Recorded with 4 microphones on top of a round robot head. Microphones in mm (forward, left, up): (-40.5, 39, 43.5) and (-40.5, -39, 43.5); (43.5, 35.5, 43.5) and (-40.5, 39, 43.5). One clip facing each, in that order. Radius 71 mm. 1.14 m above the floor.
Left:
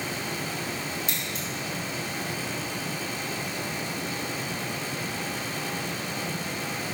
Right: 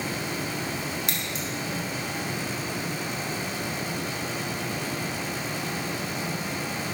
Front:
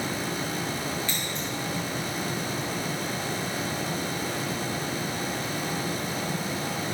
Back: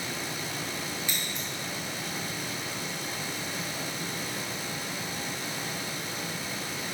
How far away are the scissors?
About 2.5 m.